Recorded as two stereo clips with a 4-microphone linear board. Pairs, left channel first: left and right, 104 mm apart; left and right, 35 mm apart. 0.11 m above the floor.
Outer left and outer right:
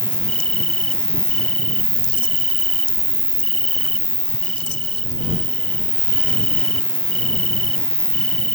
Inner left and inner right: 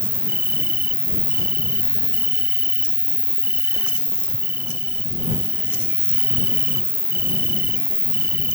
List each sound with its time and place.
0.0 s an insect: 65° right (ahead or behind)